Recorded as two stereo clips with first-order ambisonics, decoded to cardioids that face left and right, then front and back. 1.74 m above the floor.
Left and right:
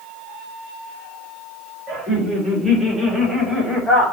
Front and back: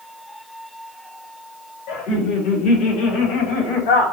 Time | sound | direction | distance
1.9 | laughter | 20° right | 2.5 m